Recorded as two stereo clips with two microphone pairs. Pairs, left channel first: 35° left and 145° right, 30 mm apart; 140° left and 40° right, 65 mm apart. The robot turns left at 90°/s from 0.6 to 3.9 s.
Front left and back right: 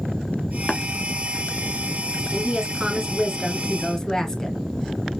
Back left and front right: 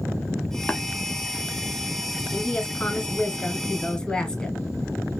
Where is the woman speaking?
130° right, 1.5 m; by 4.6 s 85° left, 1.5 m.